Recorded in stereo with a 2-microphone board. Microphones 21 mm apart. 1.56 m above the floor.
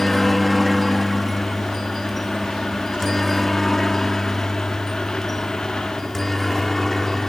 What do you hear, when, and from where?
0.0 s a helicopter: 5° left (ahead or behind); by 7.3 s 15° left (ahead or behind)